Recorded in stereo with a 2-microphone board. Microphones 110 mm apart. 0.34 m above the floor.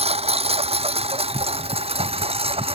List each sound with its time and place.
0.0 s a lawn mower: 80° right; by 2.8 s 70° right (ahead or behind)